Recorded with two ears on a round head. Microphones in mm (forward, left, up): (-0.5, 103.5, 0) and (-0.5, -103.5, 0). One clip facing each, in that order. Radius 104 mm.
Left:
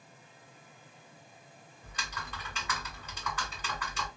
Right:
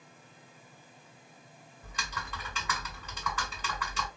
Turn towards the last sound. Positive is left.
turn(degrees=-70)  # may be behind; listen again after turning